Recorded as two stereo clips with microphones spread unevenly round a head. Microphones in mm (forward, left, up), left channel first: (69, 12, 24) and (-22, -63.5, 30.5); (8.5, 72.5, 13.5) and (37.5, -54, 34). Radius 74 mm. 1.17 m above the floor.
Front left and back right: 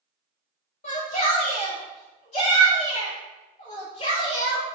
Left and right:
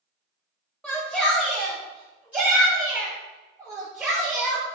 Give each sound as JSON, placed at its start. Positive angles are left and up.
{"t": 0.8, "sound": "a shout", "azimuth_deg": 15, "distance_m": 3.0}